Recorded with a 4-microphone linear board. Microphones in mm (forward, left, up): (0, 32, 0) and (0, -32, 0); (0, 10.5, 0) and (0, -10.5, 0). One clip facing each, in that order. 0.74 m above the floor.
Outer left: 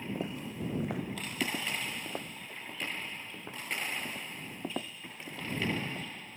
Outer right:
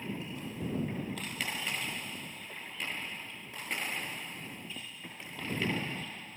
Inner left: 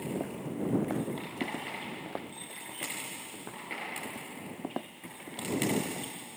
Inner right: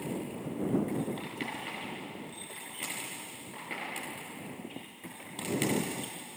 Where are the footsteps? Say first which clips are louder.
Outer left 3 dB, inner left 1 dB; 70° left (ahead or behind); by 6.0 s 75° left (ahead or behind).